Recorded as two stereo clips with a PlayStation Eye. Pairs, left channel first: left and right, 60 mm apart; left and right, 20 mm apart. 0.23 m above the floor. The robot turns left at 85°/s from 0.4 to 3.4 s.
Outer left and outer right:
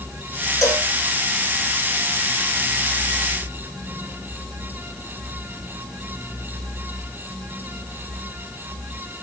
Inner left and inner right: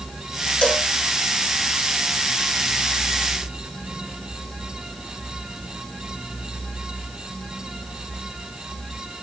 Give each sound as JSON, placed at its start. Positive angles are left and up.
{"t": 0.6, "sound": "a cowbell", "side_deg": 50, "distance_m": 1.0}